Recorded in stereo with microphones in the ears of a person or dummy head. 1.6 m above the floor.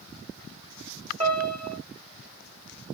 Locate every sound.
1.2 s a piano: 25° right (ahead or behind), 3 m